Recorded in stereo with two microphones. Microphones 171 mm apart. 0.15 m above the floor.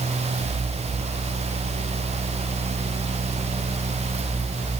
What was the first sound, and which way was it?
Only background noise.